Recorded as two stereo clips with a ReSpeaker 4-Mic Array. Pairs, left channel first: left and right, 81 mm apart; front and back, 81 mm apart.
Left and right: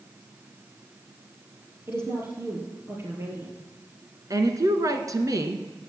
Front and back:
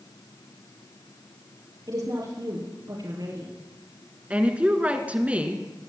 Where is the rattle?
No rattle in this recording.